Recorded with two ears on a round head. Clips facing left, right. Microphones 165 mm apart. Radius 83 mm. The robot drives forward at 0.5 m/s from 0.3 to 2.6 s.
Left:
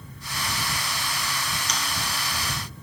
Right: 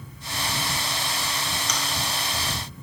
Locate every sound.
1.7 s chewing: 70° right (ahead or behind), 1.8 m